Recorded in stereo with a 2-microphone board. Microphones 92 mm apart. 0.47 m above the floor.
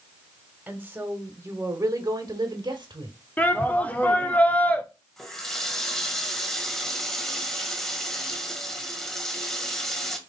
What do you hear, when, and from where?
0.7 s a woman speaking: 20° right (ahead or behind), 2.0 m; by 3.2 s 65° right (ahead or behind), 1.5 m
3.4 s a shout: 20° left (ahead or behind), 1.1 m
5.2 s a running tap: 5° left (ahead or behind), 1.5 m